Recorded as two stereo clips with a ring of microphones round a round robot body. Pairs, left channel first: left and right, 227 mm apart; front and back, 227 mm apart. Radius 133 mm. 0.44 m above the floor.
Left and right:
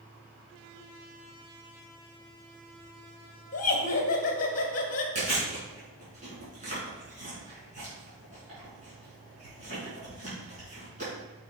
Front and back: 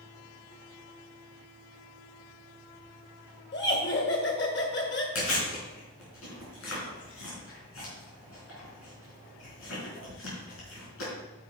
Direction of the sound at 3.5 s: 40° left.